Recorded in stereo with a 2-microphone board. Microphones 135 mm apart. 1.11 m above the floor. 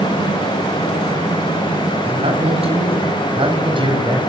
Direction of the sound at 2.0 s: 50° right (ahead or behind).